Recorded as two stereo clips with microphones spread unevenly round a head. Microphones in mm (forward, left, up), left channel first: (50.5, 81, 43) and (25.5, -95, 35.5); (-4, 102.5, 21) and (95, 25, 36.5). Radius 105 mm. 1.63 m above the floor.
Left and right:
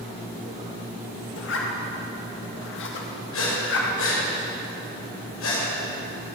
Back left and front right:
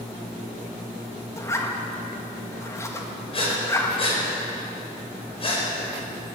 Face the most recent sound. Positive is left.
turn(degrees=100)